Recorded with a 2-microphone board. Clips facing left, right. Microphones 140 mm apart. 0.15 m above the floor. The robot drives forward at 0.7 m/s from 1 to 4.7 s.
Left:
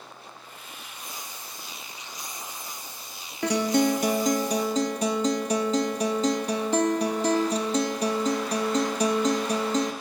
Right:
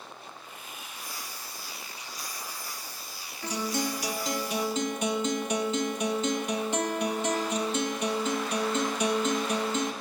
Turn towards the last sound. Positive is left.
turn(degrees=35)  # may be behind; listen again after turning